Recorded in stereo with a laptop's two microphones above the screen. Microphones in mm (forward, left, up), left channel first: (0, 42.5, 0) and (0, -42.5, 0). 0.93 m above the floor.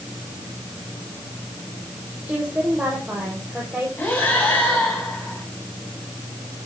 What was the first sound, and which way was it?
A woman speaking, 10° right (ahead or behind).